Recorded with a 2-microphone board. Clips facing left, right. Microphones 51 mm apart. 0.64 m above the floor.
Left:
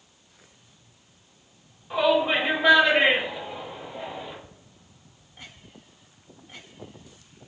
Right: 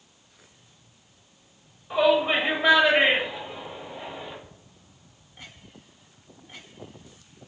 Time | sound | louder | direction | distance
1.9 | a shout | right 1 dB | 5° right (ahead or behind) | 1.1 m